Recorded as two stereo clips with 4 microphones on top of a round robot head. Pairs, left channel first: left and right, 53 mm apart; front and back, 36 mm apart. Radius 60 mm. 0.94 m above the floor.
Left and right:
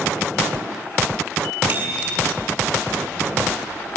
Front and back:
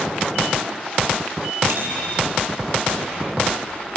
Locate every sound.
1.7 s a bicycle bell: 150° right, 8 m